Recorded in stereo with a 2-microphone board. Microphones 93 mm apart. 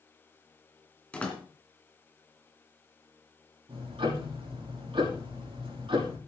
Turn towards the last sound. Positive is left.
turn(degrees=-65)  # may be behind; listen again after turning